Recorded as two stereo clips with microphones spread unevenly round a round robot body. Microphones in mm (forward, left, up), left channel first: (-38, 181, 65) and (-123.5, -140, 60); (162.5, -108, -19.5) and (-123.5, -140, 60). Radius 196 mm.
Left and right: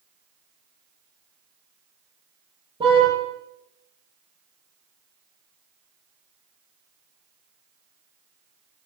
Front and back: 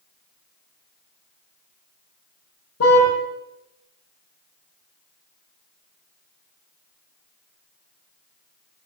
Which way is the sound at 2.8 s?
30° right.